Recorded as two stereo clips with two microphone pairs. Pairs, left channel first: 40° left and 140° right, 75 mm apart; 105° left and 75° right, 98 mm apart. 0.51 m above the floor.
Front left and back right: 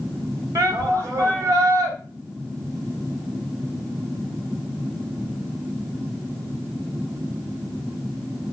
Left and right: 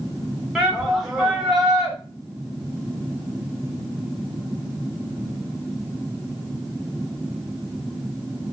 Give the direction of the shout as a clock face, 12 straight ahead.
5 o'clock.